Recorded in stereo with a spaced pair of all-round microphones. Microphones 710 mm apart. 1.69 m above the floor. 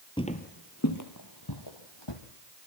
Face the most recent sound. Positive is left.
turn(degrees=40)  # may be behind; listen again after turning